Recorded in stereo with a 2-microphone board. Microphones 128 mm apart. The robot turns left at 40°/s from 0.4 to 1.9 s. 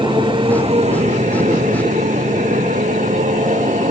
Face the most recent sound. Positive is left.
turn(degrees=-75)  # may be behind; listen again after turning